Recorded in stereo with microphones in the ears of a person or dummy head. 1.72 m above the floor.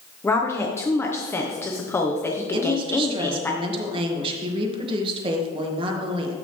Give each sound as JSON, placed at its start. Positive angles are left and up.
{"t": 0.2, "sound": "a woman speaking", "side_deg": 15, "distance_m": 1.0}
{"t": 2.5, "sound": "a woman speaking", "side_deg": -35, "distance_m": 2.0}